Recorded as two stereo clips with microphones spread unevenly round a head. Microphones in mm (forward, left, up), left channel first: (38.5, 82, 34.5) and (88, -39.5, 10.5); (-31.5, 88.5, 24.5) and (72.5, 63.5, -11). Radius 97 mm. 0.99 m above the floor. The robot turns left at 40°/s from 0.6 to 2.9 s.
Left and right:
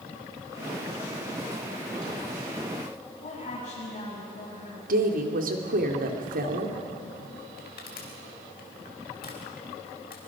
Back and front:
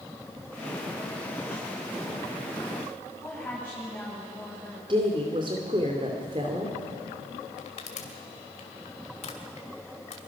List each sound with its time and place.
3.2 s a woman speaking: 90° left, 7.5 m
4.9 s a woman speaking: 75° right, 2.5 m
7.6 s crushing: 160° left, 2.5 m